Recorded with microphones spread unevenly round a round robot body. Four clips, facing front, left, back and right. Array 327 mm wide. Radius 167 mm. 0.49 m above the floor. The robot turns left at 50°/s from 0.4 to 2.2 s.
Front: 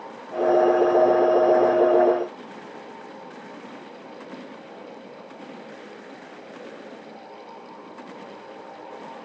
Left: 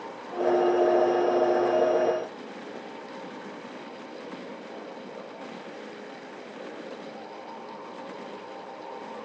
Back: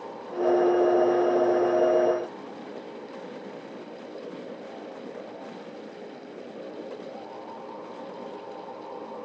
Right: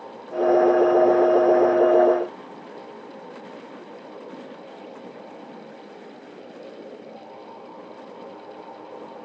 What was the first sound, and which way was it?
Only background noise.